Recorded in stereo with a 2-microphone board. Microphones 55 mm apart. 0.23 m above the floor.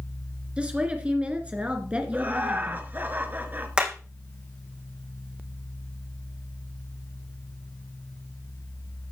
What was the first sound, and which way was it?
A woman speaking, 20° right (ahead or behind).